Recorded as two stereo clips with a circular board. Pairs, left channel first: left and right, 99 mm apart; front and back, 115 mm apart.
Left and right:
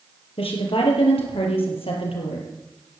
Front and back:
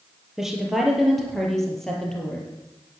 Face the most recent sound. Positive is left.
turn(degrees=85)